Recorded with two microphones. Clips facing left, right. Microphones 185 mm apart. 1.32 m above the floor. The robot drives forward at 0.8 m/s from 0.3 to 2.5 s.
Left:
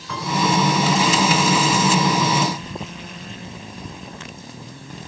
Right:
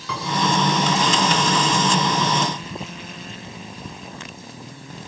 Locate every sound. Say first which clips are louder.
0.1 s a piano: even; 80° right, 7.5 m